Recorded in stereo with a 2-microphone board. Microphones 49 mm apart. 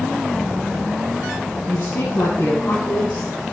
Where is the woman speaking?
40° left (ahead or behind), 2.5 m; by 3.3 s 60° left (ahead or behind), 4 m.